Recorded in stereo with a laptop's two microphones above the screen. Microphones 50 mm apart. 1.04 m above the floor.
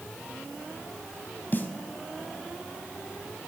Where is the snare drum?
40° left (ahead or behind), 1.6 m.